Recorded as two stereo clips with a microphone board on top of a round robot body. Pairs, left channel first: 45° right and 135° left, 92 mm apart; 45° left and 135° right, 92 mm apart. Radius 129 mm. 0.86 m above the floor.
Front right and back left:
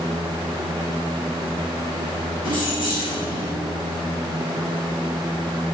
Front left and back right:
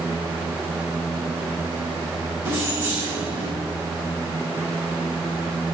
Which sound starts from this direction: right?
Keys jangling, at 2.5 s.